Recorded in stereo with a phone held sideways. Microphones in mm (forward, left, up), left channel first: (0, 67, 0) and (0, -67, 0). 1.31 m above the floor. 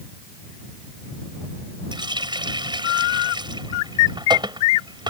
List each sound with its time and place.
1.9 s a running tap: 35° right (ahead or behind)